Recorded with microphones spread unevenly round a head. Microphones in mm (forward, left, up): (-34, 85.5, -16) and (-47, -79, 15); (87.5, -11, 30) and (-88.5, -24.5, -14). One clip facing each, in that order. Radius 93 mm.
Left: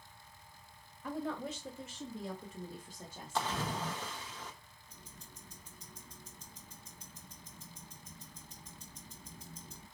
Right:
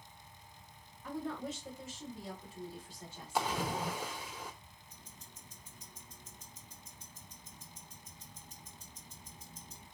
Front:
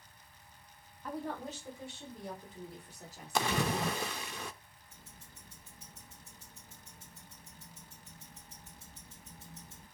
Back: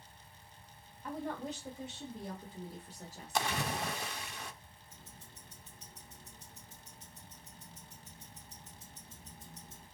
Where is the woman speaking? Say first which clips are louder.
Left 1 dB, even; 100° left, 2.5 m; by 3.6 s 150° left, 2 m.